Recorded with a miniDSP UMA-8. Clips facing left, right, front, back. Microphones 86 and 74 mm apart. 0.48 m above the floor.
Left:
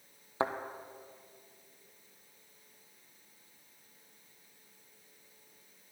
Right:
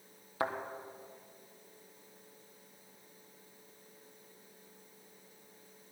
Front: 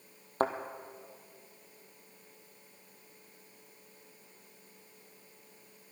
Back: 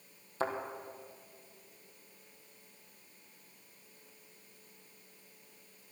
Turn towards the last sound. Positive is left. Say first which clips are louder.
# left 2 dB, front 4 dB
turn(degrees=30)